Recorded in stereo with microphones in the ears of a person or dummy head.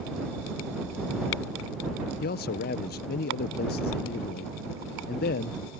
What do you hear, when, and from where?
2.2 s a man speaking: 45° left (ahead or behind)